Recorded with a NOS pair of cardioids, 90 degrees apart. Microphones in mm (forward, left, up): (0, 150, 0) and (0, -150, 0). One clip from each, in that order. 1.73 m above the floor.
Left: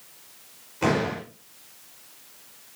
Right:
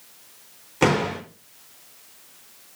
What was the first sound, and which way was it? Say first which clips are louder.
A door slam: right 3 dB; 70° right.